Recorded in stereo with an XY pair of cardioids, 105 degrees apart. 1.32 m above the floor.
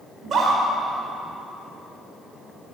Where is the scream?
50° right, 5 m.